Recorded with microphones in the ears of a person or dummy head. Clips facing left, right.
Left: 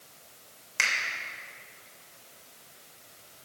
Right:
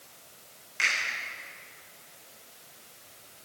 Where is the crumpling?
No crumpling in this recording.